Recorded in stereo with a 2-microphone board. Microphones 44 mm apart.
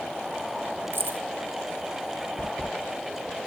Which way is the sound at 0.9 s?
60° right (ahead or behind).